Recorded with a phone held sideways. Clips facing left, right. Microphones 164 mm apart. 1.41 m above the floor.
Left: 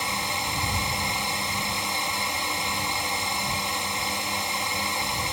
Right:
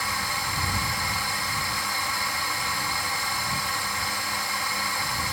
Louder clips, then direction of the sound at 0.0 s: Left 2 dB; 20° left (ahead or behind).